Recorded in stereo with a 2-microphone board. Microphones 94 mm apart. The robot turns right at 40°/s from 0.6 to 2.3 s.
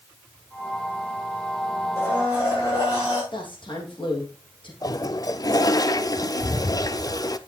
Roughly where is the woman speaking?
Left.